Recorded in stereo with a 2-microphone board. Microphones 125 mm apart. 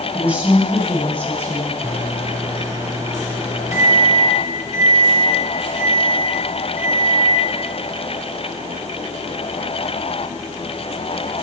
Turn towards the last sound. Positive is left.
turn(degrees=-25)  # may be behind; listen again after turning